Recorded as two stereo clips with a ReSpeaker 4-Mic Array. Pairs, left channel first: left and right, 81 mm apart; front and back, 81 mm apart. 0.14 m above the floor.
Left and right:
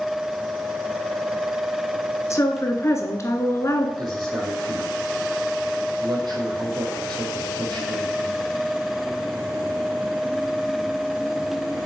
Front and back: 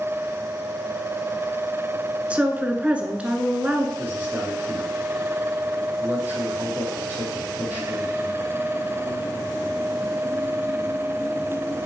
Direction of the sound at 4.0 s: 115° right.